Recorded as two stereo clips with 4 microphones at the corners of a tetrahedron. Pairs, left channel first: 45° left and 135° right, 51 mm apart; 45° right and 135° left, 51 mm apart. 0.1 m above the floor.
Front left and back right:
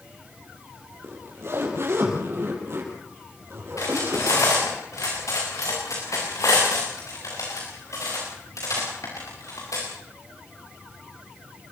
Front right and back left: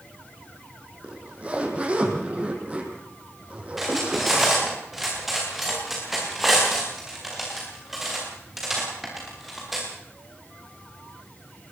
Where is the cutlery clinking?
50° left, 8 m.